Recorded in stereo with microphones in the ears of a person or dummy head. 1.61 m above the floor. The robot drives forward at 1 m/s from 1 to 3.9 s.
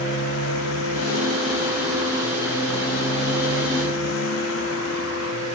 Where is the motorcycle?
80° left.